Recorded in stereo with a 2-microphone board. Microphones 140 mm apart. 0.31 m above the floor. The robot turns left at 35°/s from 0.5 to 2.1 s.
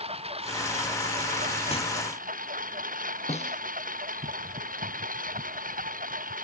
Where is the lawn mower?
45° right; by 6.5 s 100° right.